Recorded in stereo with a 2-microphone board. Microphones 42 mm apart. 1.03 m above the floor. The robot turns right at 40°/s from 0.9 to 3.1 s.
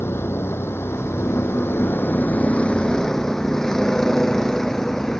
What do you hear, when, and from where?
0.0 s a vehicle: 75° left (ahead or behind); by 5.2 s 10° left (ahead or behind)